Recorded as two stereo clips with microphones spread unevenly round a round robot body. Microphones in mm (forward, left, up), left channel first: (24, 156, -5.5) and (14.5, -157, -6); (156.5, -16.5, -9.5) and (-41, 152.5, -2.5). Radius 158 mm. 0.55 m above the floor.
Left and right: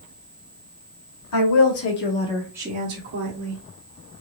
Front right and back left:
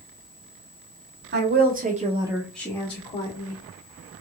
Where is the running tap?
No running tap in this recording.